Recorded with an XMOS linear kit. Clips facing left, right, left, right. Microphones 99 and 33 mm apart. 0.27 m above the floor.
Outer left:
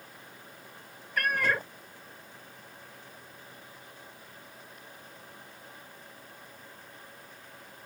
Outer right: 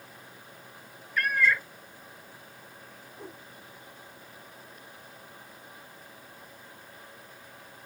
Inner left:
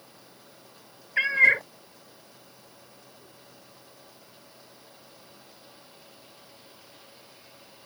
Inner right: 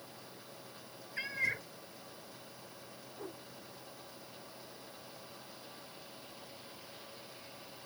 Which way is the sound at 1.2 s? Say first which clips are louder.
Outer right 2 dB, inner left 16 dB; 60° left (ahead or behind).